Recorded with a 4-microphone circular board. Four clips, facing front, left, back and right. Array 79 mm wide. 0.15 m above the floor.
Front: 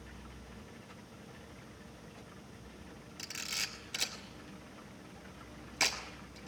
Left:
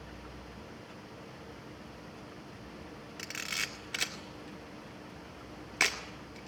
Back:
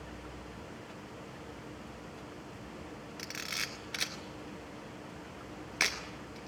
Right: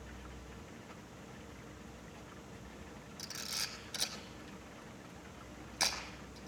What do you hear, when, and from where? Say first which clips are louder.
3.2 s a camera shutter: left 8 dB, back 2 dB; 120° left, 2 m